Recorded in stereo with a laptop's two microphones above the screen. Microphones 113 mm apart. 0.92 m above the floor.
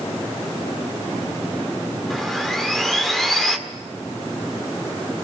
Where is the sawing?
Centre (ahead or behind), 1.8 m.